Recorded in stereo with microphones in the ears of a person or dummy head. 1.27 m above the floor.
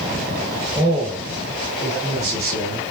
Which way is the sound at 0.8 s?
Centre (ahead or behind).